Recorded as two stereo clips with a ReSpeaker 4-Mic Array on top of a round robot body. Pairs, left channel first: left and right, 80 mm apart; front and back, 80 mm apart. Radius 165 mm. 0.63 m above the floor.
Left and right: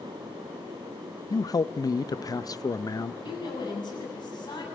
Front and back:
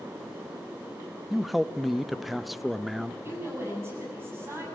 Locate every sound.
1.3 s a man speaking: 90° left, 0.7 m
3.2 s a woman speaking: 120° left, 7.5 m